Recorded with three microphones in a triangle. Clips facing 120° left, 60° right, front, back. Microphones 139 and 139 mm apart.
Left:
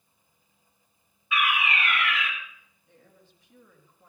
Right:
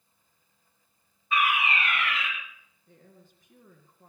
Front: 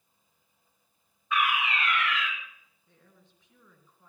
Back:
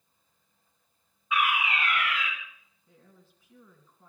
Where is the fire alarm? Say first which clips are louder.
Right 1 dB, even; 100° right, 4 m.